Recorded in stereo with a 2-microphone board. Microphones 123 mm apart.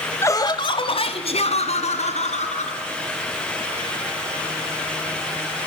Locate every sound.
0.2 s laughter: 20° left (ahead or behind), 1.1 m; by 2.8 s 70° left (ahead or behind), 4 m